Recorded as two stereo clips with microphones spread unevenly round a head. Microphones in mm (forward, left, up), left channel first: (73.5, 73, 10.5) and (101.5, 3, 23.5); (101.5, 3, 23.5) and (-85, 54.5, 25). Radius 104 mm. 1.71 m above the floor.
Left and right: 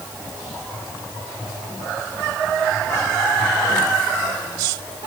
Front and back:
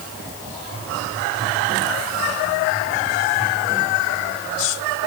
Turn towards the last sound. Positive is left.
No sound to turn to.